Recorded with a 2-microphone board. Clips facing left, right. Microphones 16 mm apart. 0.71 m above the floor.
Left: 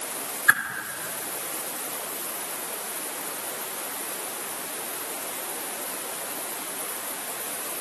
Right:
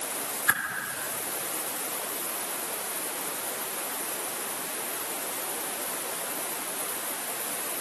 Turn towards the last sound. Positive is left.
turn(degrees=25)  # may be behind; listen again after turning